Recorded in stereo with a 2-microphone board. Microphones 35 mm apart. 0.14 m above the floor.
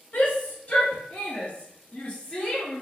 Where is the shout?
45° left (ahead or behind), 1.9 m; by 2.8 s 25° left (ahead or behind), 2.5 m.